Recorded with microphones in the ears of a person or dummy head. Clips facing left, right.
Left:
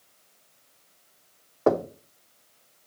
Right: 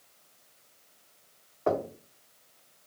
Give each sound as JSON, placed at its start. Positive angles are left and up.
{"t": 1.7, "sound": "knocking", "side_deg": 65, "distance_m": 0.7}